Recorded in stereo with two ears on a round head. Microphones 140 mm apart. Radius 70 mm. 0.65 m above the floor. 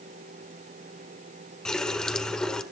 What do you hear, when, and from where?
1.6 s a running tap: 5° left (ahead or behind), 1.5 m